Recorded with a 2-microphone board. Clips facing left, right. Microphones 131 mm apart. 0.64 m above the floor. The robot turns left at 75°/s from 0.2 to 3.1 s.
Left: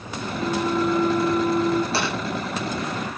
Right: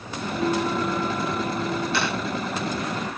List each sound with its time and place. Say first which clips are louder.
0.3 s a flute: left 1 dB; 145° right, 7 m; by 1.8 s 105° left, 7 m
1.9 s tapping: left 1 dB; 35° left (ahead or behind), 10 m; by 2.1 s 45° left (ahead or behind), 10 m